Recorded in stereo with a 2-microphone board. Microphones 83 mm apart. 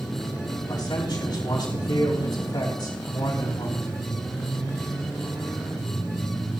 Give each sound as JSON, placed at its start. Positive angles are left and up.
{"t": 0.7, "sound": "a man speaking", "side_deg": 65, "distance_m": 4.5}